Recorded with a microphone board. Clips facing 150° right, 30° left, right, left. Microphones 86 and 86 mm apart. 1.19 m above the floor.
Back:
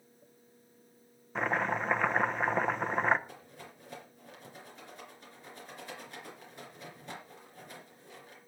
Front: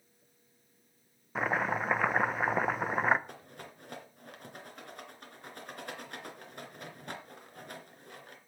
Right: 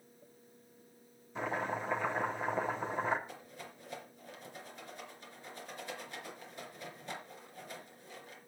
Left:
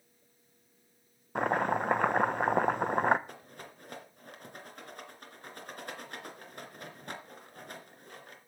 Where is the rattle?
55° left, 2.5 m.